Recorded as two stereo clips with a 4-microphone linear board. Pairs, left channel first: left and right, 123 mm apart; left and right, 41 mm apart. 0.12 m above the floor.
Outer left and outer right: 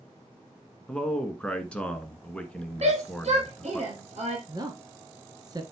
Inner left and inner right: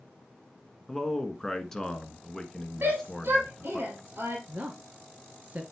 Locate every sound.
0.9 s a man speaking: 10° left (ahead or behind), 1.3 m
2.8 s a shout: 60° right (ahead or behind), 3.5 m
4.5 s a woman speaking: 30° right (ahead or behind), 1.8 m